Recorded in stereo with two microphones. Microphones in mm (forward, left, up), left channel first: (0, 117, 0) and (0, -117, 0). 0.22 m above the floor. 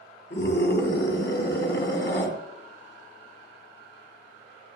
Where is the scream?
50° left (ahead or behind), 3 m.